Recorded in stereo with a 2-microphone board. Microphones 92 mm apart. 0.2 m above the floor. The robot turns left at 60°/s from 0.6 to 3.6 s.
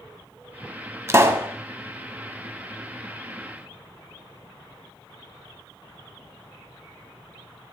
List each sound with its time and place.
1.1 s a pop: 30° right (ahead or behind), 0.8 m; by 1.5 s 25° right (ahead or behind), 0.8 m